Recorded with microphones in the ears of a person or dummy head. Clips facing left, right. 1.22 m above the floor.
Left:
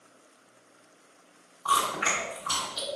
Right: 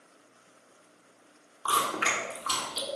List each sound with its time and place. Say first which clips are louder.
1.6 s chewing: left 1 dB; 45° right (ahead or behind), 1.2 m